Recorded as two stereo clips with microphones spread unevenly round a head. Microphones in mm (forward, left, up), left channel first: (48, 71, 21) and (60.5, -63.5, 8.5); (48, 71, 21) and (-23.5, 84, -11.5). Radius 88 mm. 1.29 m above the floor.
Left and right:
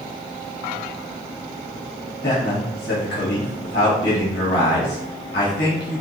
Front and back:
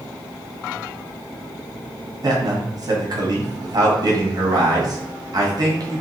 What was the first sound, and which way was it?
A man speaking, 135° left.